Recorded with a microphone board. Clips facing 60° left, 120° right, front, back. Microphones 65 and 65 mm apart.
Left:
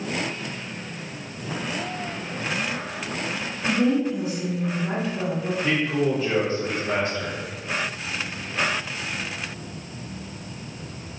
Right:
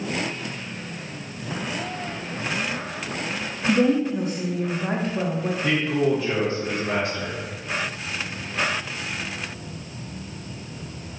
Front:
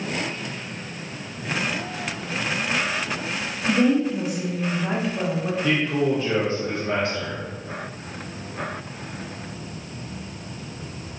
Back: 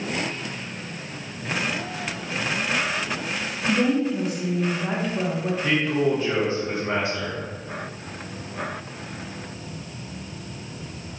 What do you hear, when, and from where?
3.7 s a woman speaking: 85° right, 0.7 m
5.6 s a man speaking: 105° right, 1.1 m